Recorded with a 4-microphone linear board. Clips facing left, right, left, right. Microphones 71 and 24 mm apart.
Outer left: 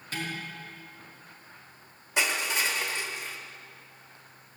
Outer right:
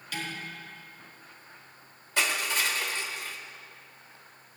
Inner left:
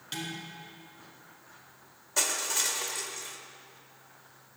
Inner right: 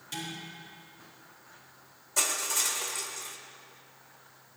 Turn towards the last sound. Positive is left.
turn(degrees=20)  # may be behind; listen again after turning